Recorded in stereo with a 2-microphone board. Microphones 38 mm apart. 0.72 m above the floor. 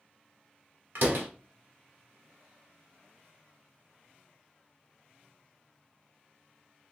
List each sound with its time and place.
0.9 s a door slam: 65° right (ahead or behind), 1.3 m